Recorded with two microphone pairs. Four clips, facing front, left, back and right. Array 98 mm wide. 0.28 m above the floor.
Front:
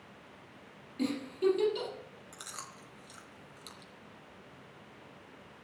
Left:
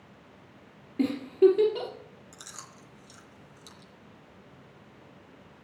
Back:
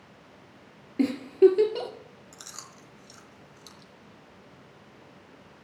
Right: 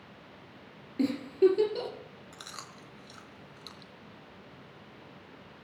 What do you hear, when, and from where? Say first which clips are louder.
1.0 s a giggle: left 3 dB, back 12 dB; 170° left, 2.5 m
2.3 s chewing: right 2 dB, front 3 dB; 80° right, 1.2 m